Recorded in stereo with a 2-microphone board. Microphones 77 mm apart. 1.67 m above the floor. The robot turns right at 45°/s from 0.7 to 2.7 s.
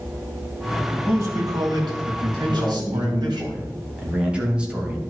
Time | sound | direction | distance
0.9 | a man speaking | 150° right | 2.5 m
2.4 | a man speaking | 25° right (ahead or behind) | 2.5 m